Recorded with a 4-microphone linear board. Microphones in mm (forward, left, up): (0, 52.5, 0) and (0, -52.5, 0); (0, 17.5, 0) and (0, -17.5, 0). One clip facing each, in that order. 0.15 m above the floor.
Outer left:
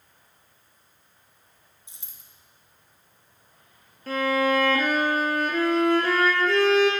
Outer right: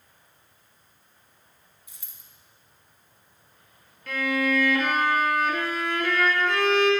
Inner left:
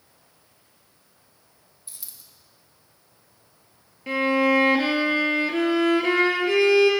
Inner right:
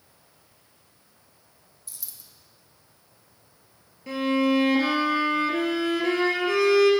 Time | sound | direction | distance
1.9 | a dropped coin | 25° left (ahead or behind) | 0.9 m
4.1 | a violin | 35° left (ahead or behind) | 1.0 m